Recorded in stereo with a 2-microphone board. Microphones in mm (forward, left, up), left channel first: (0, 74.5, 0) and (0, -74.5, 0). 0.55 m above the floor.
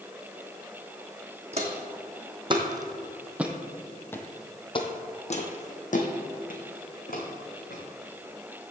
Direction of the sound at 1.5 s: 45° right (ahead or behind).